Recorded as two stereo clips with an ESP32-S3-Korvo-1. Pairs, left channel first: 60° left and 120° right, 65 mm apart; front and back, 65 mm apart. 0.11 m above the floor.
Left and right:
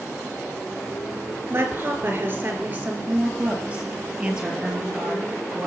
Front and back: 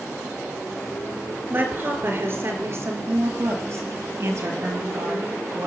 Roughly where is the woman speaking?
Behind right.